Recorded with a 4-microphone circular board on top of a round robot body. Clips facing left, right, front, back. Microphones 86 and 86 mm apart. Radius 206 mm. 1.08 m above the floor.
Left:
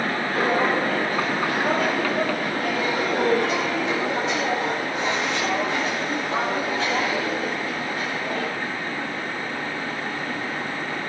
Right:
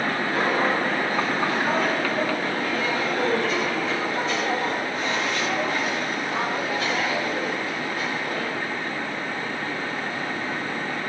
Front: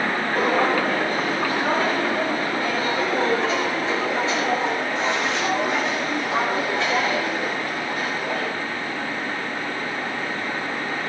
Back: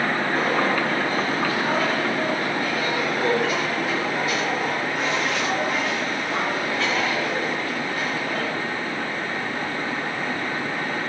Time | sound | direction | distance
0.3 | footsteps | 45° left | 1.1 m